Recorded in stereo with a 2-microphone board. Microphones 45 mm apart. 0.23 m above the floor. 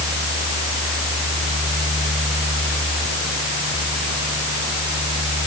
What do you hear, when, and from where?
Only background noise.